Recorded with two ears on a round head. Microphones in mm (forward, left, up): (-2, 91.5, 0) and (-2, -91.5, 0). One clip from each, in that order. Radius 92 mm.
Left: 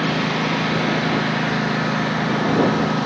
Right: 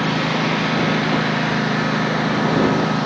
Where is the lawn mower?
Centre (ahead or behind).